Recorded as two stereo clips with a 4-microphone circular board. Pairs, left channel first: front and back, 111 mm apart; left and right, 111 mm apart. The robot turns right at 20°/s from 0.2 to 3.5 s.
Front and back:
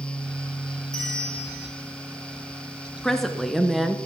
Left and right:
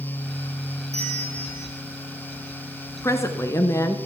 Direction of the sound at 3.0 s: 85° left.